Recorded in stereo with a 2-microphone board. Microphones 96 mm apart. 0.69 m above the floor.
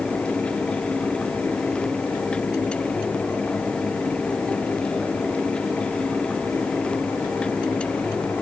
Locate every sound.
Only background noise.